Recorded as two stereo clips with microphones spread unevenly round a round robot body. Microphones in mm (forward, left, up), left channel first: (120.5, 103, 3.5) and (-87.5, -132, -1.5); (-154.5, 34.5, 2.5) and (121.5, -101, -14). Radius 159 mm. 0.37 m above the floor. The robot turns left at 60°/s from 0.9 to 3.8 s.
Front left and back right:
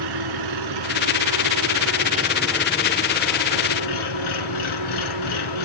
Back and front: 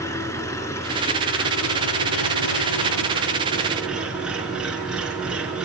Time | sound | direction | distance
0.0 | an engine running | 125° right | 3 m